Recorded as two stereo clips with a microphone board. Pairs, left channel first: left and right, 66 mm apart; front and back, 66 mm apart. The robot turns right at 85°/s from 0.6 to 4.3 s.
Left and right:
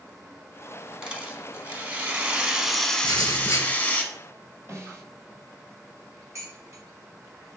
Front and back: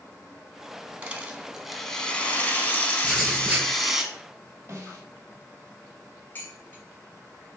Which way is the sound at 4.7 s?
135° right.